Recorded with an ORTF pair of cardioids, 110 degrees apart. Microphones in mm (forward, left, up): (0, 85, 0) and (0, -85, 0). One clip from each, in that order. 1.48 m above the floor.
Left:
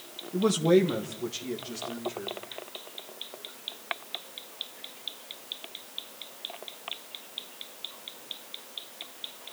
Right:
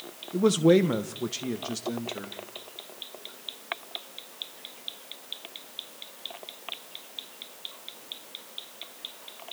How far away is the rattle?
No rattle in this recording.